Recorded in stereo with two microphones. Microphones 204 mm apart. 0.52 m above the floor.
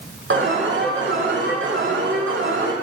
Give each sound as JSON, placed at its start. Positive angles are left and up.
{"t": 0.3, "sound": "an alarm", "side_deg": -75, "distance_m": 7.5}